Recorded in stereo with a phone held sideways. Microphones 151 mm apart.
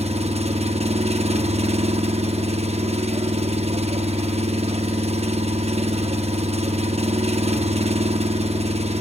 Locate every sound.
0.0 s an engine running: 40° right (ahead or behind), 0.8 m